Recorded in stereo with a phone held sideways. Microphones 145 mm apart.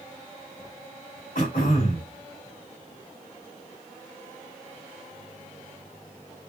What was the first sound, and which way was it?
Throat clearing, 80° left.